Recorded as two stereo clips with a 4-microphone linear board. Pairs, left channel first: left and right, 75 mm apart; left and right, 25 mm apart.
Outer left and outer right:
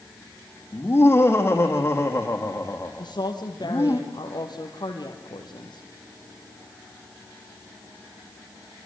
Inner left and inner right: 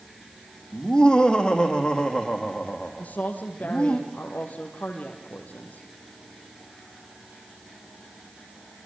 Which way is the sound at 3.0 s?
65° left (ahead or behind).